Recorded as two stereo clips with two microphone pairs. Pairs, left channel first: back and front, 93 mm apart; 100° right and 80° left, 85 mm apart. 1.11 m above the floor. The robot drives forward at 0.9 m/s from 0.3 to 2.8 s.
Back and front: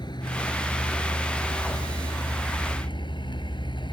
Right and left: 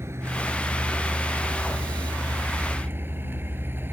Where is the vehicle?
140° left; by 4.0 s 145° left.